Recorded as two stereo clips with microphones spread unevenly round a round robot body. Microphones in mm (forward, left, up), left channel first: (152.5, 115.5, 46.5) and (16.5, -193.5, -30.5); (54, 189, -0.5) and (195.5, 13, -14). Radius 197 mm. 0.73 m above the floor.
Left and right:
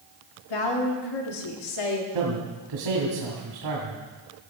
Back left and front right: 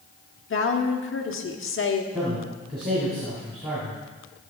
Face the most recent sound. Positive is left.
turn(degrees=-130)